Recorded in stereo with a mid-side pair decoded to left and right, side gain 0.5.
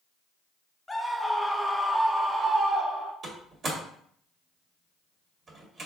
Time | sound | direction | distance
0.9 | a scream | 15° left | 1.1 m
3.2 | a door slam | 45° right | 1.8 m